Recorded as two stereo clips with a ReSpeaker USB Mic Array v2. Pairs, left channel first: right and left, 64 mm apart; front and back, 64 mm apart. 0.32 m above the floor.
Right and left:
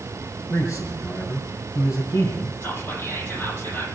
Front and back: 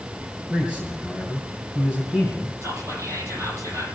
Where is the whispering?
145° right, 8.5 m.